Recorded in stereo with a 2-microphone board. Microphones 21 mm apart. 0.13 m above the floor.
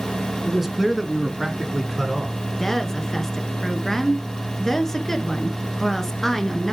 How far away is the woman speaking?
About 1.5 m.